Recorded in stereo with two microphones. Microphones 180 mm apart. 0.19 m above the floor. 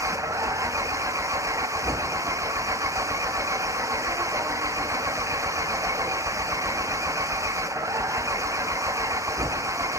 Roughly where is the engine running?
Centre.